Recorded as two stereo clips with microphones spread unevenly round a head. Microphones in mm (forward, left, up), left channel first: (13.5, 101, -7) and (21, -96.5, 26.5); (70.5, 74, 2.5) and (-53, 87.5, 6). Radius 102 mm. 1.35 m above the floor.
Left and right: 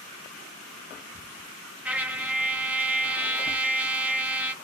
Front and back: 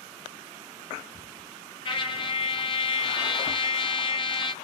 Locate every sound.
1.9 s a trumpet: 20° right, 0.5 m